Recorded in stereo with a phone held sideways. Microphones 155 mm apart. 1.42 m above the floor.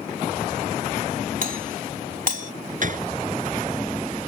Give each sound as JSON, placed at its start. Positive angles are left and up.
{"t": 1.4, "sound": "a doorbell", "side_deg": -65}
{"t": 2.8, "sound": "a gunshot", "side_deg": -60}